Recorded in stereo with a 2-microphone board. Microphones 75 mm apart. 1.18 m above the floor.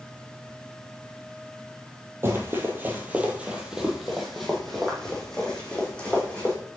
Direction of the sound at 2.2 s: 30° right (ahead or behind).